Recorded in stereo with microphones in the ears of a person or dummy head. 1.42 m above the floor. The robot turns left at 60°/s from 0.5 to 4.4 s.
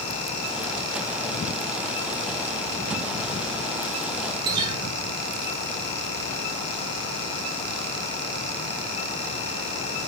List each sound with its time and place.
4.4 s a guitar: 20° right (ahead or behind), 0.6 m